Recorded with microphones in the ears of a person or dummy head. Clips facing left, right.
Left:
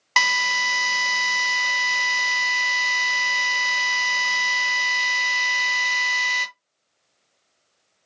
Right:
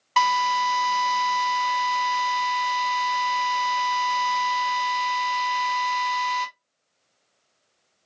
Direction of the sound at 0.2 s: 55° left (ahead or behind).